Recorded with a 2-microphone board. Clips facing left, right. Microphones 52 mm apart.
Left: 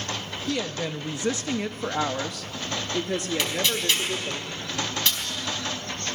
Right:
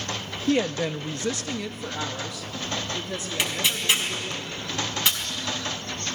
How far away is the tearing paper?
About 4.5 m.